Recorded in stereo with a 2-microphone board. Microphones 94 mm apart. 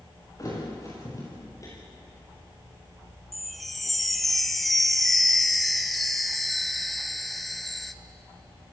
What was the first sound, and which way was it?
A thud, 35° left (ahead or behind).